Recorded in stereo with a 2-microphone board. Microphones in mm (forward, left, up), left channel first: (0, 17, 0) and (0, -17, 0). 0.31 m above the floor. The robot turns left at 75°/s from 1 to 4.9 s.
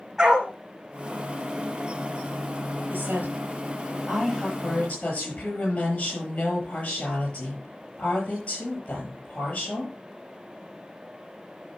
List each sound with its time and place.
0.2 s a dog barking: 10° right (ahead or behind), 4 m
2.9 s a woman speaking: 65° right, 8.5 m; by 9.9 s 145° left, 8.5 m